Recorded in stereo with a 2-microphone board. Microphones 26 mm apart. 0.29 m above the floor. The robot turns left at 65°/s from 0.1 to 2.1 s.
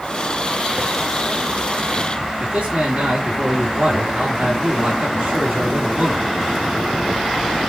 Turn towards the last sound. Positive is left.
turn(degrees=-70)  # may be behind; listen again after turning